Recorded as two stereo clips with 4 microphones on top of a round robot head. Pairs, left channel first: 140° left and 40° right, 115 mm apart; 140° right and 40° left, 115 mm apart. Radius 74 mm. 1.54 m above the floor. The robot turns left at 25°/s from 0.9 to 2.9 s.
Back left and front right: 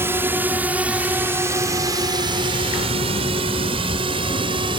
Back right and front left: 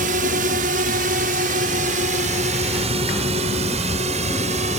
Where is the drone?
30° left; by 4.8 s 10° left.